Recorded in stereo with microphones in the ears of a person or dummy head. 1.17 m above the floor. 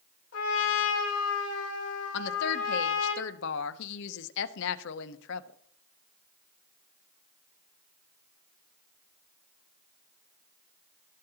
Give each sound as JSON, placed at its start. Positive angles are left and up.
{"t": 0.3, "sound": "a trumpet", "side_deg": 80, "distance_m": 3.0}
{"t": 2.1, "sound": "a woman speaking", "side_deg": 65, "distance_m": 0.7}